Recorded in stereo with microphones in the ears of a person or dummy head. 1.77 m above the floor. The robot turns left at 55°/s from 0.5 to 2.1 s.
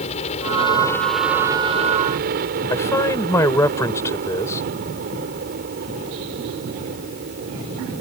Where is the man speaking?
5° left (ahead or behind).